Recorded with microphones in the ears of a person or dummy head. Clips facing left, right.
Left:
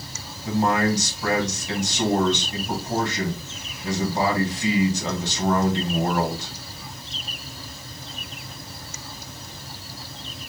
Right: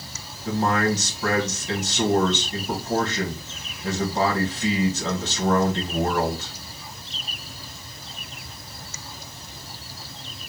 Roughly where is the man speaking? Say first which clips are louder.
Left 1 dB; centre.